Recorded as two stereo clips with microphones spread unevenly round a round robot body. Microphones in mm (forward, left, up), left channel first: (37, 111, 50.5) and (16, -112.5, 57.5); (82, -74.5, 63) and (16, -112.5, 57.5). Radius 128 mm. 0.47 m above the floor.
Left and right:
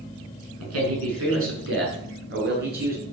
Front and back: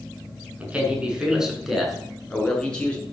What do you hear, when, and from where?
0.6 s a man speaking: 80° right, 6 m; by 3.0 s 45° right, 7 m